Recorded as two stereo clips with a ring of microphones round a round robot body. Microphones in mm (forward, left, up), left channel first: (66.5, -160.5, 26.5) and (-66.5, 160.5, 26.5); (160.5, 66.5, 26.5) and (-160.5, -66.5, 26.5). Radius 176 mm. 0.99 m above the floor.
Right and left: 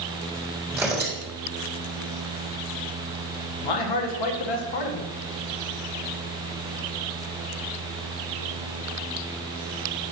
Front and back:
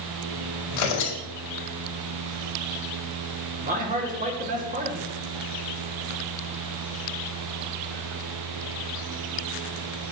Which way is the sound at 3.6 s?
90° right.